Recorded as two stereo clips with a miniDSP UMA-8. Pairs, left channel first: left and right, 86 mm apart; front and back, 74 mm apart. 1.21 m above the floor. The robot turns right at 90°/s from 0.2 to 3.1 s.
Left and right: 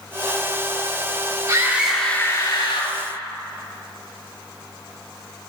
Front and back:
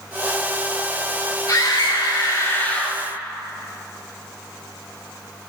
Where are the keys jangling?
No keys jangling in this recording.